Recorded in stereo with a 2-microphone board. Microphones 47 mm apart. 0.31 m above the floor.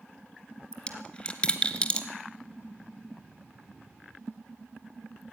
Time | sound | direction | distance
0.7 | a dropped coin | 25° left (ahead or behind) | 1.7 m